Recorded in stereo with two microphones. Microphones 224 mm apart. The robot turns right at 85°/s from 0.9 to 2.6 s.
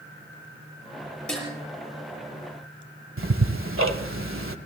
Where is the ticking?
70° right (ahead or behind), 1.2 m.